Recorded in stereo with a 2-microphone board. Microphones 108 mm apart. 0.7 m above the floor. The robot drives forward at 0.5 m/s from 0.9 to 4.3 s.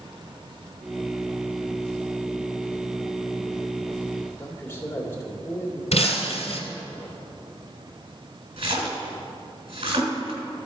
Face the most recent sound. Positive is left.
turn(degrees=-85)